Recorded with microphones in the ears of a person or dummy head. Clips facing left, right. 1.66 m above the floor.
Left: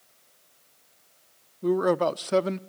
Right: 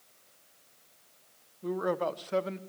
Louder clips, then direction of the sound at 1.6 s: Left 8 dB; 55° left (ahead or behind).